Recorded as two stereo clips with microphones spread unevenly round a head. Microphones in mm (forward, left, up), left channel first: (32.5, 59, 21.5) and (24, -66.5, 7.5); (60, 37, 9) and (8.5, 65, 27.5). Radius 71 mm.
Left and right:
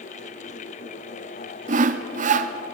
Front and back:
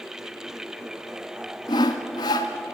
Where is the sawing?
70° right, 1.3 m.